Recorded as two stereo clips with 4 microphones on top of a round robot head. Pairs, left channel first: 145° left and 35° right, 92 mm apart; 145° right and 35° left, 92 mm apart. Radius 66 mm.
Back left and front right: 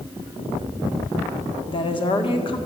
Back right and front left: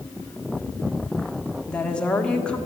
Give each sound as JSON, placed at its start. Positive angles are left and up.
{"t": 1.7, "sound": "a woman speaking", "azimuth_deg": 140, "distance_m": 1.7}